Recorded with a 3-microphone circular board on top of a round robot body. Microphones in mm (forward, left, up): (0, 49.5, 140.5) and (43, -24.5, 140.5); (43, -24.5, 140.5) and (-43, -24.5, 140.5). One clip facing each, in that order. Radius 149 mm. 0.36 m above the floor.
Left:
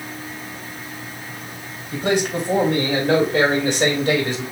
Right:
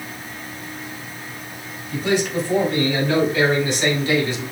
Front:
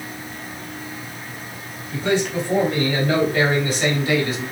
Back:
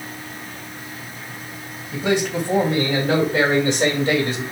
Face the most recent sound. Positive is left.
turn(degrees=130)